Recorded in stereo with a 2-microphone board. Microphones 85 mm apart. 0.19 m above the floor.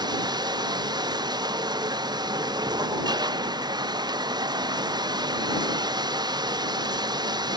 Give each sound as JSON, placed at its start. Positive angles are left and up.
{"t": 0.0, "sound": "running water", "side_deg": -55}